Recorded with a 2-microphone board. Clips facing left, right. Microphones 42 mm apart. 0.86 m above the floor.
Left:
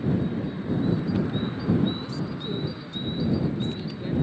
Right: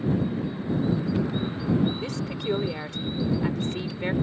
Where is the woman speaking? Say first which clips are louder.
Right 2 dB; 75° right (ahead or behind).